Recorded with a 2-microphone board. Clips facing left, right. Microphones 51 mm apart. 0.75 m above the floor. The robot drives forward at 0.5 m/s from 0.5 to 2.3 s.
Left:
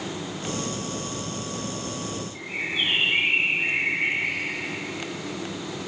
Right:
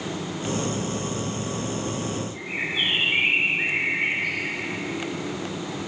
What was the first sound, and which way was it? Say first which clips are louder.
A bird: left 2 dB; 80° right.